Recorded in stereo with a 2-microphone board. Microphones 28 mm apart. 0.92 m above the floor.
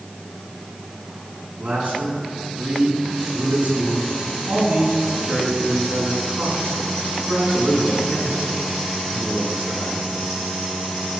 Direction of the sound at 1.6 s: 65° right (ahead or behind).